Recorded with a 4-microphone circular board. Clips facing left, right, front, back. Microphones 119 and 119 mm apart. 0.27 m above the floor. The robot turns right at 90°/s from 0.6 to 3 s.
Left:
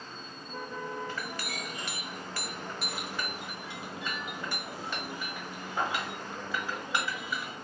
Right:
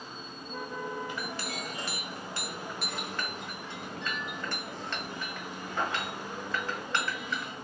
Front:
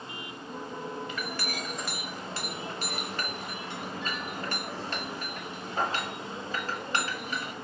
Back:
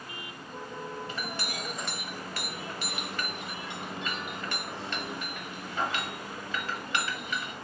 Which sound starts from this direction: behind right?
A clink, at 1.1 s.